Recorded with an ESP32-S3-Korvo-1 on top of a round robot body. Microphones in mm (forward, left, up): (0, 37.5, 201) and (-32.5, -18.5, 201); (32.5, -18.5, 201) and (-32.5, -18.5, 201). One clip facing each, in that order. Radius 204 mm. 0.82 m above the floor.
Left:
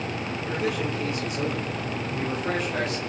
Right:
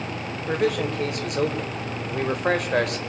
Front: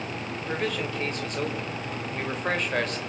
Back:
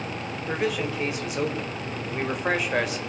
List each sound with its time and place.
0.4 s a man speaking: 95° right, 4.5 m